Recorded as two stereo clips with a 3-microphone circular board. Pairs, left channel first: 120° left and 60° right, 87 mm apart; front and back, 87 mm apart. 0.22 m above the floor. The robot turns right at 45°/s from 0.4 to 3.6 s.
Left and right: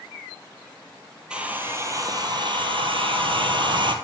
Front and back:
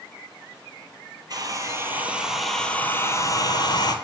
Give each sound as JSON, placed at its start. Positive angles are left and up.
{"t": 1.3, "sound": "a hair dryer", "azimuth_deg": -140, "distance_m": 0.8}